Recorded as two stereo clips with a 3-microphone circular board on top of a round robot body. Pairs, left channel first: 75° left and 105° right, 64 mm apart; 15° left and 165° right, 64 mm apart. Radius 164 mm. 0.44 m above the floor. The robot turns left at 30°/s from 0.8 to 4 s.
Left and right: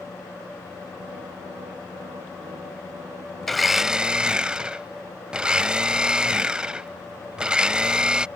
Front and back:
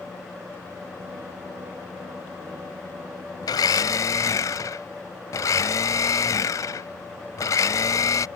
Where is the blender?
10° right; by 8.3 s 25° right.